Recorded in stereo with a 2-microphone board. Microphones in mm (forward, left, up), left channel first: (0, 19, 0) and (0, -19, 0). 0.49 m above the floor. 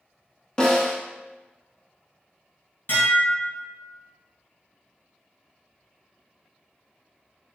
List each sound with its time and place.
0.6 s a snare drum: 25° left (ahead or behind), 0.7 m
2.9 s dishes clattering: 65° left (ahead or behind), 1.6 m